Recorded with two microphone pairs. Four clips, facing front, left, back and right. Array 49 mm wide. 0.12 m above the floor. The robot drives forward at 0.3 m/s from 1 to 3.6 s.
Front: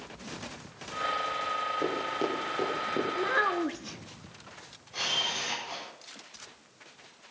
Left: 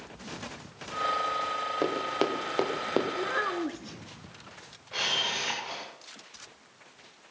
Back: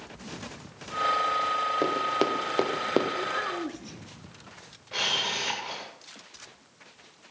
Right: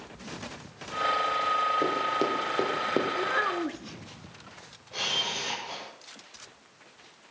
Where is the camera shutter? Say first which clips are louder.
Left 1 dB, back 3 dB; 155° left, 8.5 m.